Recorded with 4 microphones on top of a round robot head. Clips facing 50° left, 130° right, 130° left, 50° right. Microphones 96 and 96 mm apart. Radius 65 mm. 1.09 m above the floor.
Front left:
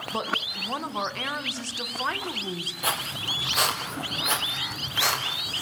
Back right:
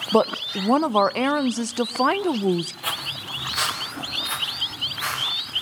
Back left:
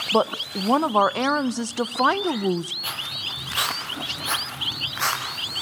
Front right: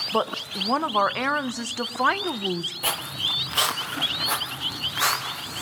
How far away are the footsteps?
About 1.7 m.